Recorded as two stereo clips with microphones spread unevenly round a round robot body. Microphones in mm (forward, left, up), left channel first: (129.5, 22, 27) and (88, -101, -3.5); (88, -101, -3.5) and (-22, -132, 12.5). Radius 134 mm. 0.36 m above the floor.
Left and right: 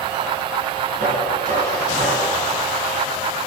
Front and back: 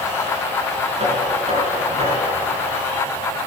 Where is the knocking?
140° right, 4.5 m.